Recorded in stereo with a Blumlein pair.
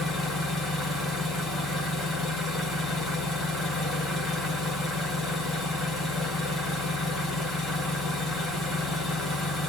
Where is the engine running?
15° left, 2.5 m.